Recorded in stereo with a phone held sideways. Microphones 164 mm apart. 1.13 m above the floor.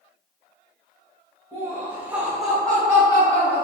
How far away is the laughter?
About 1.2 m.